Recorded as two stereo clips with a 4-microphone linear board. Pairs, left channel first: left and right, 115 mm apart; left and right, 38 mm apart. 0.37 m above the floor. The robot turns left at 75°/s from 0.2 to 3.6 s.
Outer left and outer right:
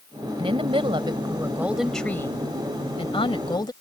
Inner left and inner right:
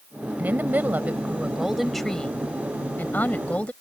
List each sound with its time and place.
0.4 s a woman speaking: 70° right; by 3.7 s 50° left